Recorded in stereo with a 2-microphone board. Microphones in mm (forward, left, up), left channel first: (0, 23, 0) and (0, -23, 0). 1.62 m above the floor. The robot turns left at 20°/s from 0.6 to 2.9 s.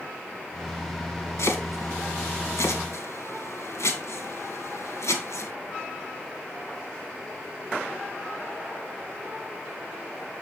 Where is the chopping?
65° left (ahead or behind), 2.5 m; by 5.5 s 80° left, 2.5 m.